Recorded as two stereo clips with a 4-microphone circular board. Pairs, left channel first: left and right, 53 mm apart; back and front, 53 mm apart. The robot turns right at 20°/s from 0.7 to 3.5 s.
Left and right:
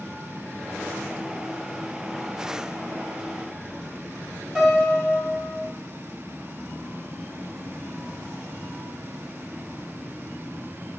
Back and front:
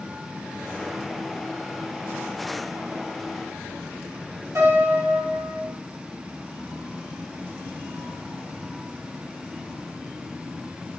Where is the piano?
10° right, 1.7 m.